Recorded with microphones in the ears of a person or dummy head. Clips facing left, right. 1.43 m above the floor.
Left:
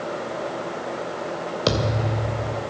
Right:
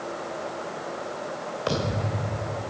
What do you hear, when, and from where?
1.7 s a thud: 50° left (ahead or behind), 2 m